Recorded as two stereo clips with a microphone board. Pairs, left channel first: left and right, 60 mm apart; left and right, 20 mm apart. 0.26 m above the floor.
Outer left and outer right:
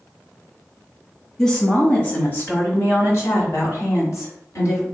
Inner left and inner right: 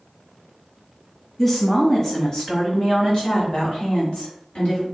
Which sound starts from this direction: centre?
A woman speaking, at 1.4 s.